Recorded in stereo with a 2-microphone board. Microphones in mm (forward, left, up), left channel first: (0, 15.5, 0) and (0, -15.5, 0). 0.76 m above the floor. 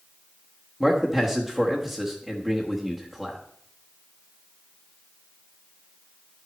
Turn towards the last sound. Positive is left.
turn(degrees=0)  # may be behind; listen again after turning